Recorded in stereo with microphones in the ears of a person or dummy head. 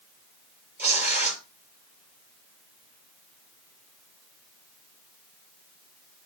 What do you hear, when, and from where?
0.8 s tearing paper: 15° right (ahead or behind), 4 m